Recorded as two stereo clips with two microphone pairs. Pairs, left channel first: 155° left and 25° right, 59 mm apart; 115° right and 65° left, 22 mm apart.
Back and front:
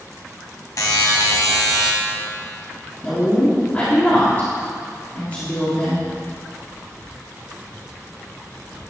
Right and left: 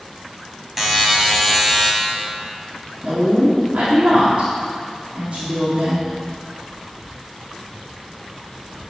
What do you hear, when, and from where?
0.8 s a buzzer: 145° left, 1.6 m
3.0 s a woman speaking: 100° left, 2.5 m